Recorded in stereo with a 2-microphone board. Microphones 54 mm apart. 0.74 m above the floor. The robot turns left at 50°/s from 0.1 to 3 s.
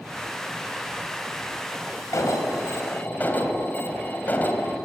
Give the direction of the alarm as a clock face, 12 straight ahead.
9 o'clock.